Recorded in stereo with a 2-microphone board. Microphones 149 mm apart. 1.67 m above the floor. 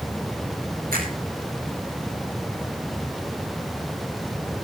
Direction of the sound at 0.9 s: 80° right.